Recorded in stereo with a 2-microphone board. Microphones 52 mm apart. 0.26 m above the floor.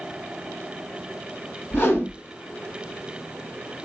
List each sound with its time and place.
1.7 s a whoosh: 45° left (ahead or behind), 1.6 m